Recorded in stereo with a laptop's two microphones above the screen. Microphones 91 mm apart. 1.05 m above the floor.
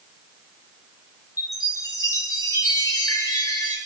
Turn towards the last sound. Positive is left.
turn(degrees=35)  # may be behind; listen again after turning